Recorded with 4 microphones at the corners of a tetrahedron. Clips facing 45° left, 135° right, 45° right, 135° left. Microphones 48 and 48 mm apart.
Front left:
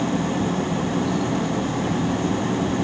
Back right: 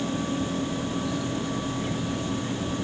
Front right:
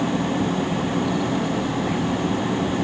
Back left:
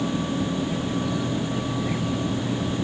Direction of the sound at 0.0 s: Straight ahead.